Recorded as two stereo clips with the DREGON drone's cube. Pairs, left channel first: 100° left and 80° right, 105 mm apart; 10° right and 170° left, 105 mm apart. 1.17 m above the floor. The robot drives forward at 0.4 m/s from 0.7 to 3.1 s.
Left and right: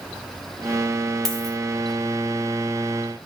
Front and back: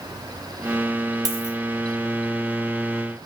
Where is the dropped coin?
175° right, 0.8 m.